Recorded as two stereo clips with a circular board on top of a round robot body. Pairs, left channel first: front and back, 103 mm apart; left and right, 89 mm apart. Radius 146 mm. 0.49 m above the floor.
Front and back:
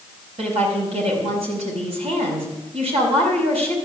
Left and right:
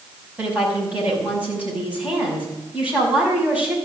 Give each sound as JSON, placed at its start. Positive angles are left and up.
{"t": 0.4, "sound": "a woman speaking", "azimuth_deg": -165, "distance_m": 6.0}